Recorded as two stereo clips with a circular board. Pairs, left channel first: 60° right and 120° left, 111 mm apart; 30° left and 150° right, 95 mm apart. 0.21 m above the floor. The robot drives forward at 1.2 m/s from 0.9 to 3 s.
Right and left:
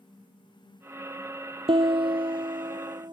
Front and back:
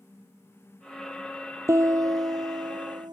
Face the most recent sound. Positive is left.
turn(degrees=170)